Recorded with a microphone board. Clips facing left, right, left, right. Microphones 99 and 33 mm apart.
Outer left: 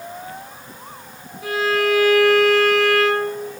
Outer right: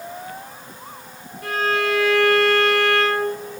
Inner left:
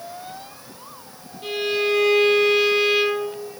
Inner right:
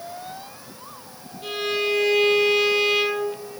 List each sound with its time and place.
1.4 s a violin: 5° left (ahead or behind), 3 m